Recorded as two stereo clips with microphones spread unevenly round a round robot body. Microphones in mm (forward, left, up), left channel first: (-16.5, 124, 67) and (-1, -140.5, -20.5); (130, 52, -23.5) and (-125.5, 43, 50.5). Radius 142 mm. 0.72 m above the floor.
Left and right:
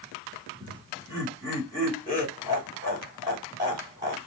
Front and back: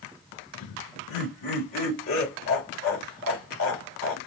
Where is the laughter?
15° right, 2 m.